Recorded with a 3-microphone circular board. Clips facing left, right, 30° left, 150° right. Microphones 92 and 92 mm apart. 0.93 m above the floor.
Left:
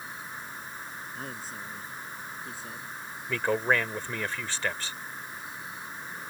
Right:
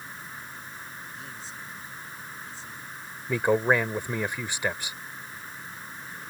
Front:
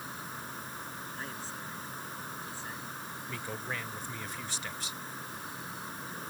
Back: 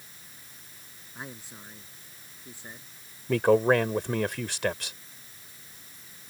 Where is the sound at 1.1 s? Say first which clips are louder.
Left 2 dB, front 3 dB; 135° left.